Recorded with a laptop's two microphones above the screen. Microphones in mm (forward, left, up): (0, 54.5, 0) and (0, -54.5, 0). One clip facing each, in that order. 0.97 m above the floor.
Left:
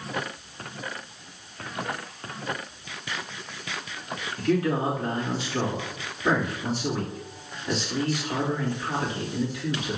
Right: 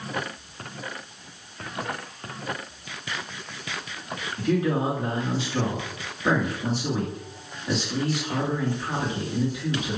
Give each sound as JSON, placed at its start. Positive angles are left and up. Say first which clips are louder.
{"t": 4.4, "sound": "a man speaking", "louder": "even", "side_deg": -20, "distance_m": 2.5}